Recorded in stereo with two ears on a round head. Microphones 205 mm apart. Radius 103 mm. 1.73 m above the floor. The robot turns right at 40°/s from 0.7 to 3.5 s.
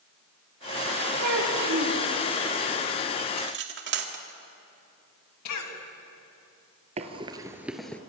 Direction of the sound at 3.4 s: 50° right (ahead or behind).